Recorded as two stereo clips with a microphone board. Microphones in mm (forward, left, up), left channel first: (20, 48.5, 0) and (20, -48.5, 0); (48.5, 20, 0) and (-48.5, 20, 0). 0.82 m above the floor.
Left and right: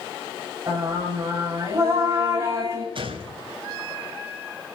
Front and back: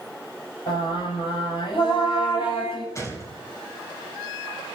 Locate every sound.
0.7 s singing: 30° right, 6 m
3.0 s a gunshot: 60° right, 3.5 m